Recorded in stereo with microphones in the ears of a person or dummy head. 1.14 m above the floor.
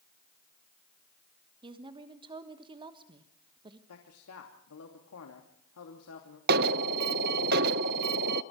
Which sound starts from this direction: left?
A man speaking, at 3.9 s.